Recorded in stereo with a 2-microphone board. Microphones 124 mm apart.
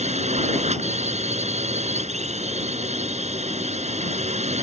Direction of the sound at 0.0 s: 65° right (ahead or behind).